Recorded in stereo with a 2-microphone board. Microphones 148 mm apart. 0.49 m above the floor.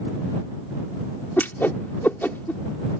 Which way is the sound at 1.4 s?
15° left (ahead or behind).